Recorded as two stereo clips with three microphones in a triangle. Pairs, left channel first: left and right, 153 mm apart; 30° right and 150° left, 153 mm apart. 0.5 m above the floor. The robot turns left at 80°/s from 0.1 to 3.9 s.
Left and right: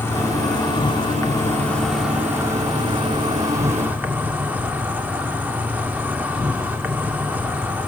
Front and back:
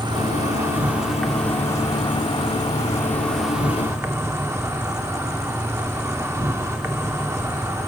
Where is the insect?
145° left, 1.3 m; by 7.9 s 155° right, 1.3 m.